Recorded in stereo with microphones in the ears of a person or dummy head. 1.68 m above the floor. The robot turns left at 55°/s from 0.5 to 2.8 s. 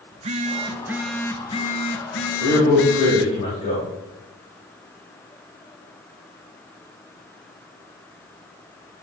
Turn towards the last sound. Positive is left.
turn(degrees=40)  # may be behind; listen again after turning